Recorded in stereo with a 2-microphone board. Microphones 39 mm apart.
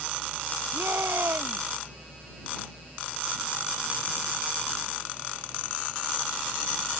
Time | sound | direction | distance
0.7 | a shout | 85° right | ?